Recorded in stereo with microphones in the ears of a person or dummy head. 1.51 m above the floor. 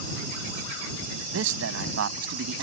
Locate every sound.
1.3 s a man speaking: 75° right (ahead or behind)